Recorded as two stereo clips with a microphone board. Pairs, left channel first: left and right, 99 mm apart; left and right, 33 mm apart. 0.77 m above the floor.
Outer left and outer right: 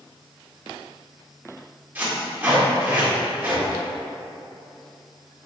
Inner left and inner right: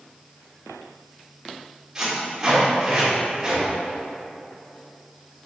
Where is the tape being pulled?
20° right (ahead or behind), 1.9 m.